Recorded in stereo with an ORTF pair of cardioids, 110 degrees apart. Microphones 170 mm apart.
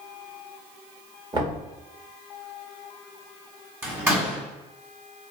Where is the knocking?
30° right, 1.5 m.